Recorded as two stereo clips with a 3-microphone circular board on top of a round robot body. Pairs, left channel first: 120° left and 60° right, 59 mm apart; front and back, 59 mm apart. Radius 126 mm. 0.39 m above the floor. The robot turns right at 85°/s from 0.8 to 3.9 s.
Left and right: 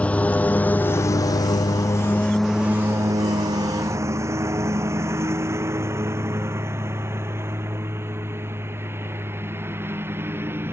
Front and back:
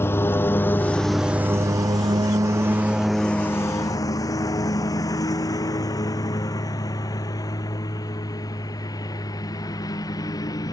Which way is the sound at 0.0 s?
50° left.